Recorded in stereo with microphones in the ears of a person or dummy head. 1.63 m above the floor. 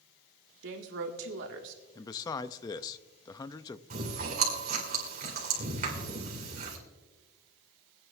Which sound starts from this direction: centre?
A man speaking, at 1.9 s.